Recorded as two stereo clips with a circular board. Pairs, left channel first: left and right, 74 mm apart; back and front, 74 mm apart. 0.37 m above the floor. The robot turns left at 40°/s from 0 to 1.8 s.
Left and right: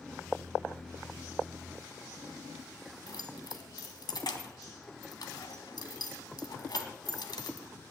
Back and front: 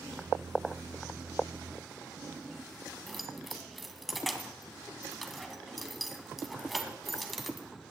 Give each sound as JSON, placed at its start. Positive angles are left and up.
{"t": 3.1, "sound": "keys jangling", "azimuth_deg": 90, "distance_m": 1.7}